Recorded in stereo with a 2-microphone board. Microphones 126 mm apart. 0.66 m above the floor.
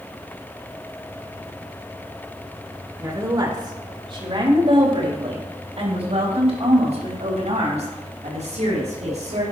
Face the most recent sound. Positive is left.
turn(degrees=-65)  # may be behind; listen again after turning